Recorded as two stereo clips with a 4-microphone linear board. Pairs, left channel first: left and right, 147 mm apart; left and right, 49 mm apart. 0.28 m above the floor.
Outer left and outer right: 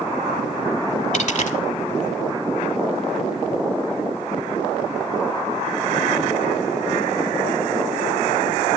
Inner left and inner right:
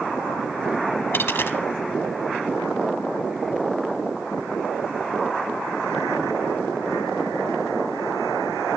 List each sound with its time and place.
1.1 s a dropped coin: 60° left (ahead or behind), 0.7 m